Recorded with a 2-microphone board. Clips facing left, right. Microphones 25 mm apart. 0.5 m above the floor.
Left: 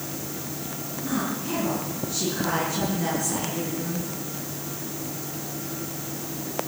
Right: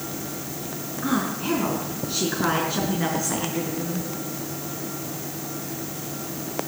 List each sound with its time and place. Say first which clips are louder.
1.0 s a woman speaking: right 4 dB; 60° right (ahead or behind), 5 m; by 4.1 s 20° right (ahead or behind), 7 m